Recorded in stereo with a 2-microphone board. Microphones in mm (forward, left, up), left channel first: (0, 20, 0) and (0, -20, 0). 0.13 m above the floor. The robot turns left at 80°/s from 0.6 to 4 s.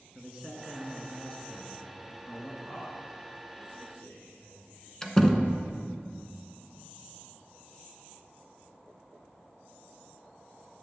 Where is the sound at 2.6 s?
10° right (ahead or behind), 3 m; by 4.9 s 65° left (ahead or behind), 3 m.